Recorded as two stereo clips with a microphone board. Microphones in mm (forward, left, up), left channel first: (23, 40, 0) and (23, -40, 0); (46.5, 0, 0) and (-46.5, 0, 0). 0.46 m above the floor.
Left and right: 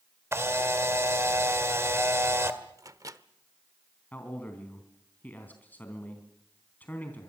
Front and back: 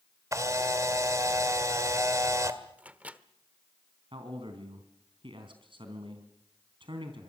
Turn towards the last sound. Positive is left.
turn(degrees=160)